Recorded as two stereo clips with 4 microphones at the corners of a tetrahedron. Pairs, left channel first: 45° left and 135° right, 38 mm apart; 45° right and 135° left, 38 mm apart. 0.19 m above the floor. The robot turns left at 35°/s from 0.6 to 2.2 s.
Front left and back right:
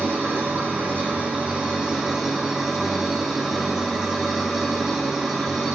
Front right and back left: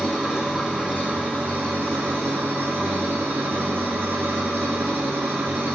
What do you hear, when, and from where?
0.0 s an engine running: 155° right, 4.5 m; by 5.8 s 145° left, 4.5 m